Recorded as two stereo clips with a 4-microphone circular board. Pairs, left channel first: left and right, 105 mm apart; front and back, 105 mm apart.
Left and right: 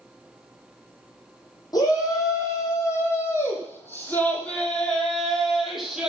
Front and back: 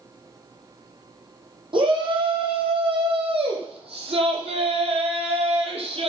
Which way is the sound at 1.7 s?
145° left.